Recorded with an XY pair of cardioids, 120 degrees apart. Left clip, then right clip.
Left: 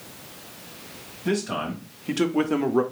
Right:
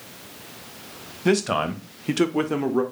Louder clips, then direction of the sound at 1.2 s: Right 5 dB; 55° right.